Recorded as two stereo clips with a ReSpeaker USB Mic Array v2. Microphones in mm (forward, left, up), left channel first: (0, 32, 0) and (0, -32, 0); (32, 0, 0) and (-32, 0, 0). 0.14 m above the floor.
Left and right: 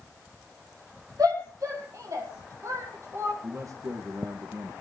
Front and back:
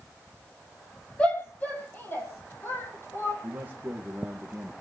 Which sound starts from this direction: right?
A shout, at 1.2 s.